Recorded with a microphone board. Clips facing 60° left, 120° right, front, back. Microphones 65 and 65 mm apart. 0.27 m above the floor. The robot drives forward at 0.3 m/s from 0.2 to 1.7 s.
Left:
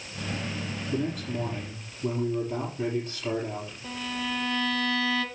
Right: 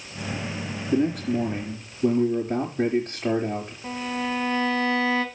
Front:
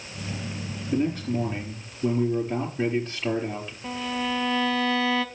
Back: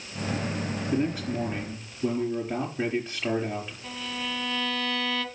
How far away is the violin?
About 1.4 m.